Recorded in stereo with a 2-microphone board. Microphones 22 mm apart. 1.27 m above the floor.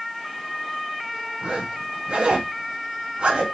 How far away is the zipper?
About 1.8 m.